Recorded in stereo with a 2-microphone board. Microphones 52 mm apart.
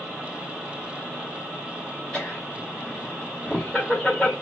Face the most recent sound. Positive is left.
turn(degrees=10)  # may be behind; listen again after turning